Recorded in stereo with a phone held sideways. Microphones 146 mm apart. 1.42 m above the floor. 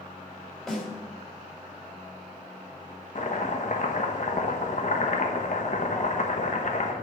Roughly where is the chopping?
Left.